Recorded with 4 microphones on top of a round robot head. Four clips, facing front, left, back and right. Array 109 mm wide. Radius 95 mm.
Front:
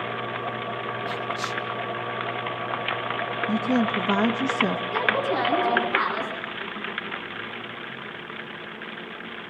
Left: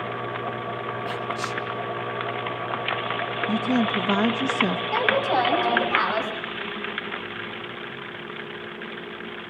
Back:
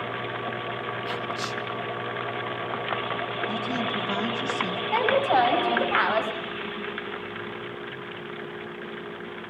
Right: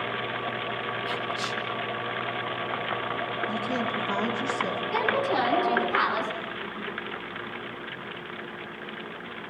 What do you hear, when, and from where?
1.1 s whispering: 40° left, 1.2 m
3.5 s a woman speaking: 45° left, 1.8 m
4.9 s a woman speaking: 155° left, 6.5 m